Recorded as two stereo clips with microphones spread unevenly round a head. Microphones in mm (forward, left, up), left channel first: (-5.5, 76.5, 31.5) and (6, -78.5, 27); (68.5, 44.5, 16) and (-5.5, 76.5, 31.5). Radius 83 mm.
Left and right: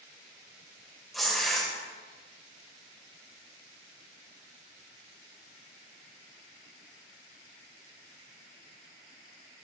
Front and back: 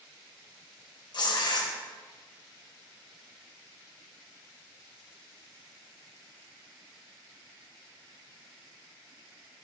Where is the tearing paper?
5° left, 4 m.